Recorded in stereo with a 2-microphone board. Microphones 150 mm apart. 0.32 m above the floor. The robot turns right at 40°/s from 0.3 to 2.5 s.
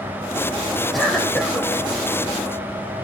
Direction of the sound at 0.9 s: Centre (ahead or behind).